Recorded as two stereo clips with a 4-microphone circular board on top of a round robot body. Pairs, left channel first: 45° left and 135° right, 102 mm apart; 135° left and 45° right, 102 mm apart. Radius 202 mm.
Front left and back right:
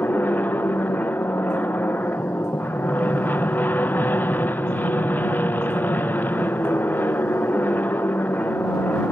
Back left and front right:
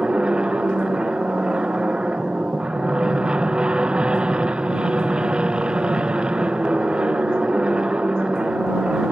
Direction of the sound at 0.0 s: 20° left.